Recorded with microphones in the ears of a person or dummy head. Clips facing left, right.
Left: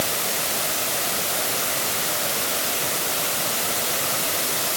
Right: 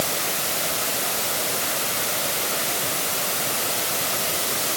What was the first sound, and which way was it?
Only background noise.